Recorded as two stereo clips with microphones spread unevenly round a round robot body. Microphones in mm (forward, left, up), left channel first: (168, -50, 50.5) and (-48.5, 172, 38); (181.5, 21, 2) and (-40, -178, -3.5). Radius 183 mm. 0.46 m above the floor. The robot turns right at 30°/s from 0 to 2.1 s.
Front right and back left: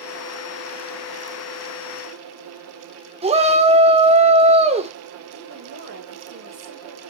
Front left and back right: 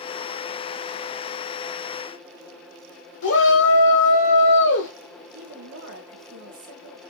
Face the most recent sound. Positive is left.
turn(degrees=180)